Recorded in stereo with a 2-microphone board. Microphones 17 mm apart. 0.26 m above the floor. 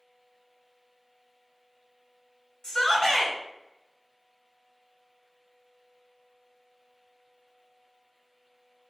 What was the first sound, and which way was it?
A shout, 45° left (ahead or behind).